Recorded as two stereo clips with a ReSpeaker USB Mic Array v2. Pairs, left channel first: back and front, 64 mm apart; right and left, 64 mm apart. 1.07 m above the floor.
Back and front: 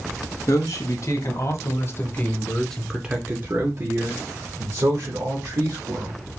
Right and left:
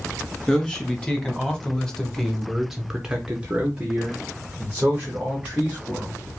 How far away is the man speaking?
About 1.7 m.